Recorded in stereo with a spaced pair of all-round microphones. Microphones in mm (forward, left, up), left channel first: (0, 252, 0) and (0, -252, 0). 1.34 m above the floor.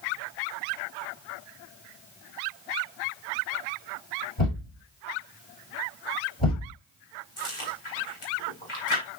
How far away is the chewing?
About 4.5 m.